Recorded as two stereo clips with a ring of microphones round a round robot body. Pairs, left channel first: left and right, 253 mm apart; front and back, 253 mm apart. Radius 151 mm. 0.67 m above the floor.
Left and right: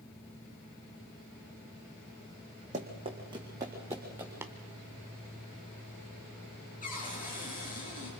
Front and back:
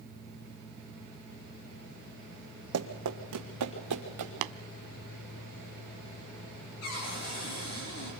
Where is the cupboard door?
30° left, 7.5 m.